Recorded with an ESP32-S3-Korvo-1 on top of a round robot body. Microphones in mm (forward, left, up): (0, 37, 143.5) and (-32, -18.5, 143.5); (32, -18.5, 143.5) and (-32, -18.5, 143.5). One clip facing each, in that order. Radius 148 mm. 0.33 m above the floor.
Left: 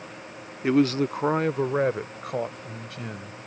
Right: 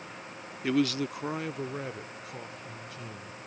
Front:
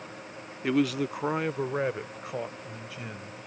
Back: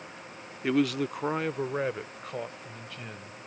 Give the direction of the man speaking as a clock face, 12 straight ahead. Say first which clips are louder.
Left 6 dB, even; 9 o'clock.